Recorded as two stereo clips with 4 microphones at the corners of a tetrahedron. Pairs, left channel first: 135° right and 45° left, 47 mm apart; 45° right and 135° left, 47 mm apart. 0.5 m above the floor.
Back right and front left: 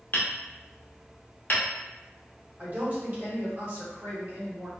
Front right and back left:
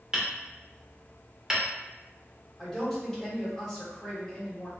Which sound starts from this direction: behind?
Hammering, at 0.1 s.